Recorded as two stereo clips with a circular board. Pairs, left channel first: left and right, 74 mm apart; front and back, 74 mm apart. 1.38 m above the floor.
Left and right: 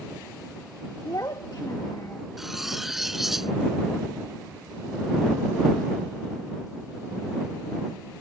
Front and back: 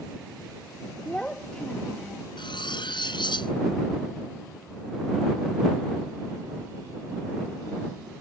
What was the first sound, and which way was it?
A child speaking, 75° left.